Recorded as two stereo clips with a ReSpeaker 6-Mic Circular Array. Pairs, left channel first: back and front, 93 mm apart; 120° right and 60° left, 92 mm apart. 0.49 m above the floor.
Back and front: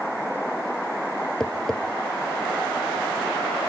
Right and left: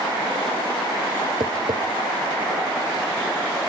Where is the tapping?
100° left, 2.0 m.